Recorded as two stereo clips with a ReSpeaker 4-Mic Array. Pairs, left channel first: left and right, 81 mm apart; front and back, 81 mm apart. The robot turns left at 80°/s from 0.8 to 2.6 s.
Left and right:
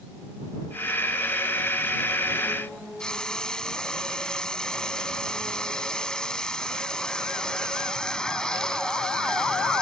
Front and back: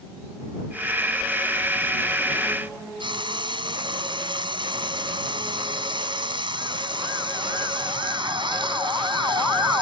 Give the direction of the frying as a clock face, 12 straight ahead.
6 o'clock.